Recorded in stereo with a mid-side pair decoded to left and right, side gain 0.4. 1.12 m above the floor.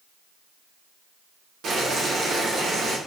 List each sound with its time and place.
1.6 s boiling: 65° right, 1.3 m